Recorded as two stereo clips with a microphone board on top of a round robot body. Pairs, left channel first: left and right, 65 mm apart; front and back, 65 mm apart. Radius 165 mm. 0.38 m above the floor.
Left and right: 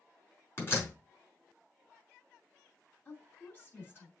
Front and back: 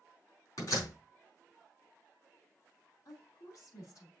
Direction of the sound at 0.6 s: 35° left.